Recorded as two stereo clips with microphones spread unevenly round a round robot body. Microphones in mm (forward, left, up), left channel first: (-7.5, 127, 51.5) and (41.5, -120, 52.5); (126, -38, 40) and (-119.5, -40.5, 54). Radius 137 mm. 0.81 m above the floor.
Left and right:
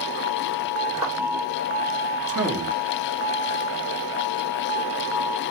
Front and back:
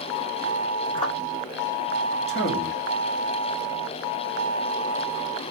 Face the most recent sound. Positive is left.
turn(degrees=-45)